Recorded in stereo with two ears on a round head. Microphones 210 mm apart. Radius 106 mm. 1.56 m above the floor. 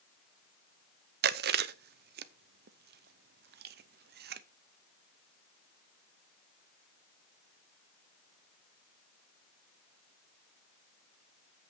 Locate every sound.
1.2 s chewing: 40° right (ahead or behind), 0.6 m